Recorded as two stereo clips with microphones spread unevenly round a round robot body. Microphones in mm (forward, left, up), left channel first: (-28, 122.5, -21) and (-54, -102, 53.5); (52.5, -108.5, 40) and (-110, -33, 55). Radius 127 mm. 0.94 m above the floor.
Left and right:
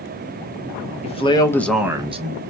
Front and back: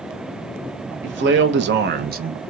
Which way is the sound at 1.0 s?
135° left.